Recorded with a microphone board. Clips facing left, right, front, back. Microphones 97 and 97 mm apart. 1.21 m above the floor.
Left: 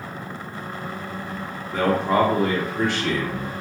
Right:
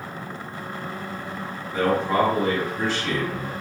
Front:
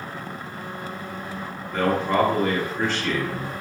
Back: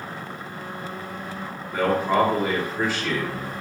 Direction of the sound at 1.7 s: 100° left.